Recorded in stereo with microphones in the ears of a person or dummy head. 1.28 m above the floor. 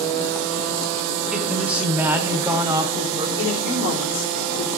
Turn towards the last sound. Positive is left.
turn(degrees=60)  # may be behind; listen again after turning